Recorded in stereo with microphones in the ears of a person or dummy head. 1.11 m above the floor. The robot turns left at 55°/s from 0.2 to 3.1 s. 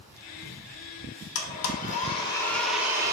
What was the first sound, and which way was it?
A blender, 80° left.